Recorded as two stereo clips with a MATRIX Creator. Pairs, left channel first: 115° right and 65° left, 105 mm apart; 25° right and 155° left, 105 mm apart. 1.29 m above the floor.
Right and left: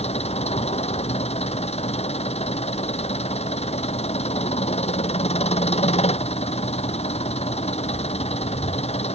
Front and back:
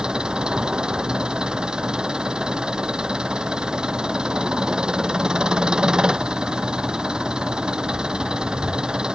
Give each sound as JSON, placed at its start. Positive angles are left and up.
{"t": 0.0, "sound": "an engine running", "azimuth_deg": -120}